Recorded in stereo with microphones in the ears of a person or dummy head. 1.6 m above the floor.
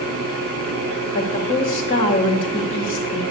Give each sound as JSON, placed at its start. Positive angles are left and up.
{"t": 0.0, "sound": "a fan", "side_deg": -50, "distance_m": 7.0}
{"t": 1.1, "sound": "a woman speaking", "side_deg": 30, "distance_m": 2.5}